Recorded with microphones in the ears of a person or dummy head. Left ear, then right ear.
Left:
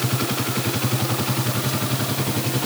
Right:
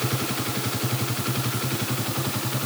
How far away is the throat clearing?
I don't hear throat clearing.